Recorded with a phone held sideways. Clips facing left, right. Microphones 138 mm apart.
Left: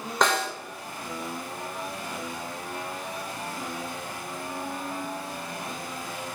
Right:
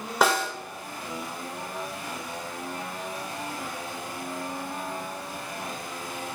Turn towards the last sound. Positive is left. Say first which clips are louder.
# right 1 dB
turn(degrees=-5)  # may be behind; listen again after turning